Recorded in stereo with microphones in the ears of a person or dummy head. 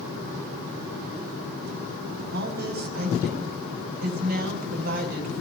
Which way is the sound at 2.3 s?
55° right (ahead or behind).